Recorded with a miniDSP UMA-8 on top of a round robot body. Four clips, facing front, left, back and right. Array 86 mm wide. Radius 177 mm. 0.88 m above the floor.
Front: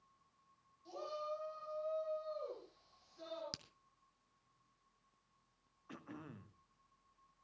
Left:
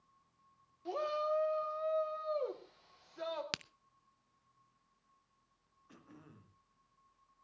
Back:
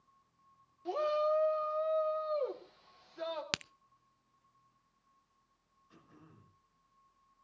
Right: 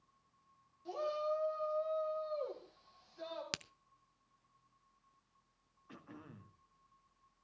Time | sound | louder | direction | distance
0.8 | a shout | left 2 dB, back 13 dB | 150° left | 2.5 m
3.5 | a crack | left 2 dB, back 16 dB | 170° left | 0.5 m
5.9 | throat clearing | right 4 dB, front 9 dB | 15° right | 2 m